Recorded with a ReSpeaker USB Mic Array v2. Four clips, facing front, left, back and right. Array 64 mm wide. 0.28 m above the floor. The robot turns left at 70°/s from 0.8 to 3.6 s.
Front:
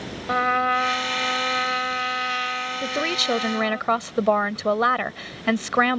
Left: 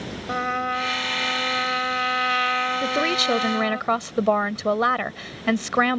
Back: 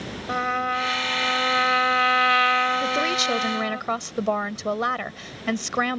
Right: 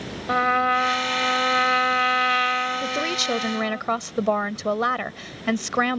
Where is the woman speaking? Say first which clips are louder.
Left 3 dB, back 2 dB; 90° left; by 6.0 s 35° left.